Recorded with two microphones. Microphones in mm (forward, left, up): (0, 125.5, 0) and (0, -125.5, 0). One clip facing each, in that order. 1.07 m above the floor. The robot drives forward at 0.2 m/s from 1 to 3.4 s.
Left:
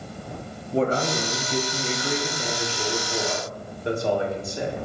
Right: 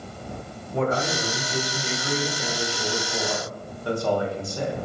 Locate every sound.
0.7 s a man speaking: 30° left (ahead or behind), 0.6 m; by 4.8 s 20° left (ahead or behind), 1.0 m